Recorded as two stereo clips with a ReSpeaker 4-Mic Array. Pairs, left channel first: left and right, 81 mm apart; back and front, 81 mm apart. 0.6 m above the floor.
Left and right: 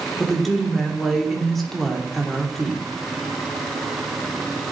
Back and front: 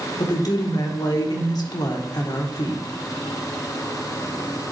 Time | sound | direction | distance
0.2 | a woman speaking | straight behind | 1.4 m